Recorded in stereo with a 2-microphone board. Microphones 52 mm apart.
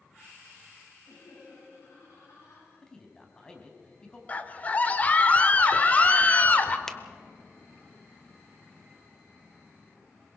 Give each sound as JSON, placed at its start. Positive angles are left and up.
{"t": 1.1, "sound": "laughter", "side_deg": 70, "distance_m": 7.5}
{"t": 2.8, "sound": "a man speaking", "side_deg": 15, "distance_m": 3.5}
{"t": 4.3, "sound": "a scream", "side_deg": 25, "distance_m": 1.4}
{"t": 6.9, "sound": "a finger snap", "side_deg": 5, "distance_m": 1.0}